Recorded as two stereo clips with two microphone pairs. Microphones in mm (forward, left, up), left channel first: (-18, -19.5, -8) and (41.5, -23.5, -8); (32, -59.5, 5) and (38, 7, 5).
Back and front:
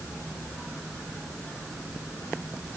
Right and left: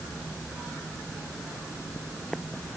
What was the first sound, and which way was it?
Only background noise.